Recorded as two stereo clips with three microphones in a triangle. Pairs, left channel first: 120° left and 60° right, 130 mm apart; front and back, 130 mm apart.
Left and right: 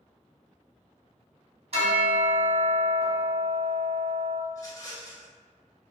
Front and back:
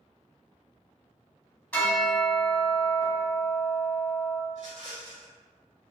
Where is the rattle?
Straight behind, 0.9 m.